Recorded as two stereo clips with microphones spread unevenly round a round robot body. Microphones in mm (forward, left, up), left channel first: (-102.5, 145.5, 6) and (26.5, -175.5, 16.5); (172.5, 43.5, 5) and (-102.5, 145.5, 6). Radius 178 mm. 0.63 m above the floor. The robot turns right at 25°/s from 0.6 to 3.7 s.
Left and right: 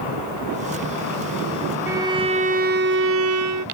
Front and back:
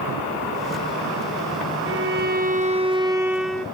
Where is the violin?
150° right; by 3.7 s 105° right.